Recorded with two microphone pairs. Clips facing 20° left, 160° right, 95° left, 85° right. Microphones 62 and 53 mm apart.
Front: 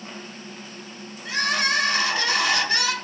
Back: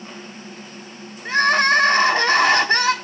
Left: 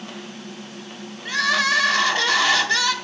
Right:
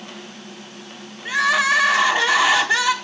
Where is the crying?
155° right, 0.9 m.